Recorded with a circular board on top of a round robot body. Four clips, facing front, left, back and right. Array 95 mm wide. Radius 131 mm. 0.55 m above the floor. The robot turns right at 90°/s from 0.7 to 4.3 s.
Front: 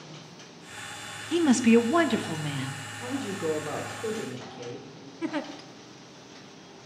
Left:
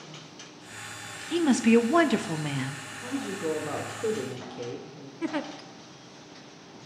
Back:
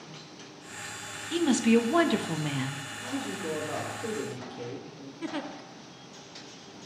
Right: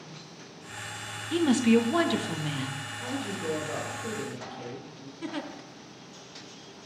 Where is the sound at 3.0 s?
20° right, 1.6 m; by 5.1 s 100° left, 1.6 m.